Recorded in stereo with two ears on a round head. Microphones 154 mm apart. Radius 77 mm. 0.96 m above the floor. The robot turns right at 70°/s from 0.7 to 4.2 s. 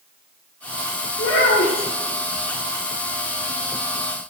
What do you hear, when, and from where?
1.2 s a child speaking: 100° left, 1.6 m; by 1.9 s 150° left, 1.6 m